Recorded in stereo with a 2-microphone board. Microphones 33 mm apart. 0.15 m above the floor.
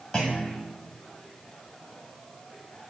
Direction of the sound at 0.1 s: 10° left (ahead or behind).